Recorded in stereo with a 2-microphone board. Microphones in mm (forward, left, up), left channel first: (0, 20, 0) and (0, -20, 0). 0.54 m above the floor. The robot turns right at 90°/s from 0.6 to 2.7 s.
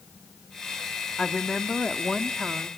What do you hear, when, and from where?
1.2 s a woman speaking: 20° left (ahead or behind), 0.9 m; by 2.7 s 25° right (ahead or behind), 0.9 m